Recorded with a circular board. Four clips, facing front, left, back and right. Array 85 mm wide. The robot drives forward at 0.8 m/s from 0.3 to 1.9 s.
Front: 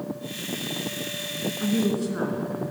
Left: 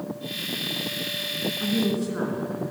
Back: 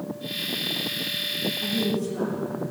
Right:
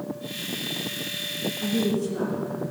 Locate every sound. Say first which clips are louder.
1.6 s a woman speaking: even, front 3 dB; 35° left, 2.5 m; by 2.5 s 40° left, 2 m